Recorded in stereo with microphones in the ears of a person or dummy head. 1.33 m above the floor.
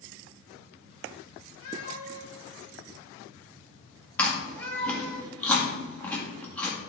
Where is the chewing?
10° left (ahead or behind), 1.7 m.